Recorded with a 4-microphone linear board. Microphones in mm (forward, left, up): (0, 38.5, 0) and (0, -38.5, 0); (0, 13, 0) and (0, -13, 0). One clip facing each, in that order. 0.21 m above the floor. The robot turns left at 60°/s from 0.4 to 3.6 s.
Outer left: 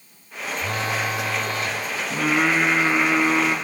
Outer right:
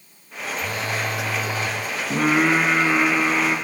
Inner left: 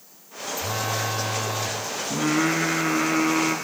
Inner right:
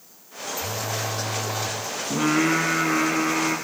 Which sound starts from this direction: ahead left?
A phone buzzing, at 0.6 s.